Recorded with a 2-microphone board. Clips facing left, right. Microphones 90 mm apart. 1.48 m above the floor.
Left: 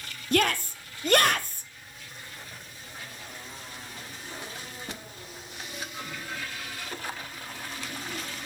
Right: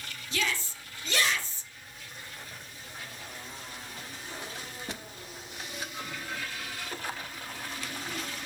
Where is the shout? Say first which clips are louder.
Left 8 dB; 55° left (ahead or behind), 0.6 m.